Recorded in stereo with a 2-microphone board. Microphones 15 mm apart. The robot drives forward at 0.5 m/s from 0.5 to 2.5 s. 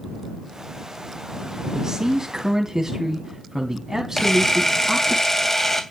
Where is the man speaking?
50° right (ahead or behind), 2.5 m; by 5.2 s 45° right (ahead or behind), 2.5 m.